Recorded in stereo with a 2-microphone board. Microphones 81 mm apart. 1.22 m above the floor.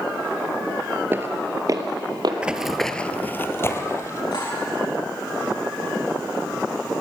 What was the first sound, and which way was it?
Footsteps, 25° right (ahead or behind).